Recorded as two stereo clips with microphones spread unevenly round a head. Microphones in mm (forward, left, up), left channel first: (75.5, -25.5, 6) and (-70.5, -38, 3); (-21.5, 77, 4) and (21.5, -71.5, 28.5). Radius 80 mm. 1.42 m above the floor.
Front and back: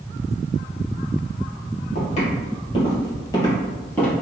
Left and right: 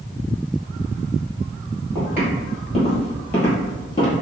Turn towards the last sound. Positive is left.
turn(degrees=75)